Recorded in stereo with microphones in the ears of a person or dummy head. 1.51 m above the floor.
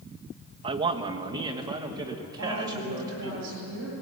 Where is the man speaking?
25° right (ahead or behind), 1.5 m; by 3.4 s 15° right (ahead or behind), 4 m.